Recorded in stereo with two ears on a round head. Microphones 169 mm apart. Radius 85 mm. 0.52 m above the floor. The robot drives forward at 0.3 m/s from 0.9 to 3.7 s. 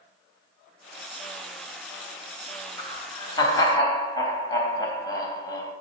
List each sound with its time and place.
2.8 s laughter: 25° left (ahead or behind), 2.5 m; by 5.7 s 20° left (ahead or behind), 3 m